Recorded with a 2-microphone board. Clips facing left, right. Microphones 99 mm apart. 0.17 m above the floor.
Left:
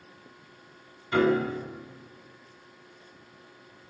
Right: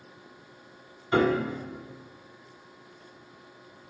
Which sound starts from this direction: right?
A piano, at 1.1 s.